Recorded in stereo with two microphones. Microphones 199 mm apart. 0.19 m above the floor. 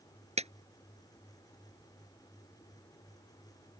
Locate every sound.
0.4 s a clap: 35° right (ahead or behind)